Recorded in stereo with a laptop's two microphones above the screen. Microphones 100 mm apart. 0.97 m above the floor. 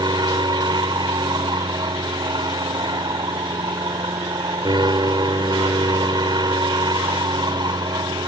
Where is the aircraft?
45° right (ahead or behind).